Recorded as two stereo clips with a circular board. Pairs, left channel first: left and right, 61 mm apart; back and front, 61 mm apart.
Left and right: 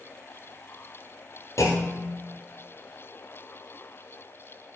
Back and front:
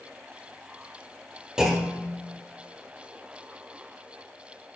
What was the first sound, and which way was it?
A clunk, 80° left.